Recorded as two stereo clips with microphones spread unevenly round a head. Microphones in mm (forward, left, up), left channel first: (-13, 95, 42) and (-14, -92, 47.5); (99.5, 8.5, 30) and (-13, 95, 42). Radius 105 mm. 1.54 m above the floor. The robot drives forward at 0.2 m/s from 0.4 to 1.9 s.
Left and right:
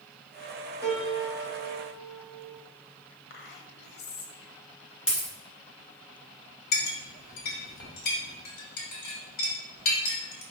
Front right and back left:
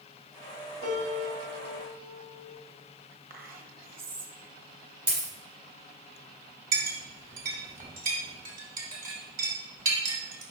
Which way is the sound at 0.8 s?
165° right.